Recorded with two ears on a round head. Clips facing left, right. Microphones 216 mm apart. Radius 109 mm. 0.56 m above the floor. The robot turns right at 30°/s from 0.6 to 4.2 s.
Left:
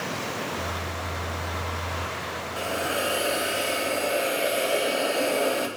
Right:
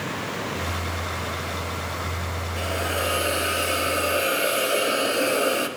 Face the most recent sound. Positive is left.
turn(degrees=-10)  # may be behind; listen again after turning